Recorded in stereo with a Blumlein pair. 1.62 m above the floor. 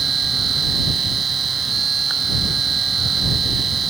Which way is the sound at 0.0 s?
20° right.